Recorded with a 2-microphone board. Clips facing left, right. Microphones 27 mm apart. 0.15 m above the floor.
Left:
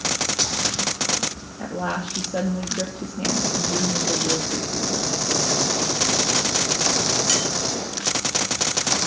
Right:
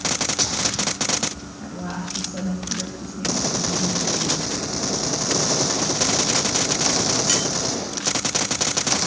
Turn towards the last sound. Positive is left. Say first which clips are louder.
# left 5 dB
turn(degrees=75)  # may be behind; listen again after turning